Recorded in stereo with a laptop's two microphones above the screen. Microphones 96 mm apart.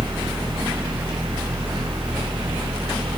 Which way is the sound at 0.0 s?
75° right (ahead or behind).